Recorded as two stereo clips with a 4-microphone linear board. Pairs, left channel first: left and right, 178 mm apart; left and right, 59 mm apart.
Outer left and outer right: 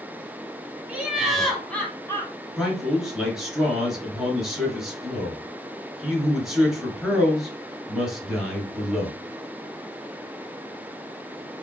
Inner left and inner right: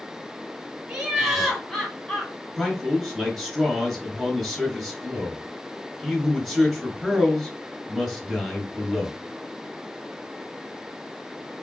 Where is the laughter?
10° right (ahead or behind), 1.6 m; by 2.3 s 20° left (ahead or behind), 1.4 m.